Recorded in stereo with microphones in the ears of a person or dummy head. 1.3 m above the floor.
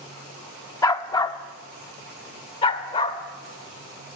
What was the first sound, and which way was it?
A dog barking, 20° left (ahead or behind).